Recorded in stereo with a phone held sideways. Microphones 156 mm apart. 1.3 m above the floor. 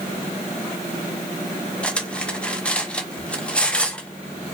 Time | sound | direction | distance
1.8 | cutlery clinking | 10° left (ahead or behind) | 0.6 m